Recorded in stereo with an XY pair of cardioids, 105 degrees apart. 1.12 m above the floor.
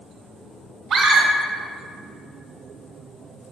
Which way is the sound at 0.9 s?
65° right.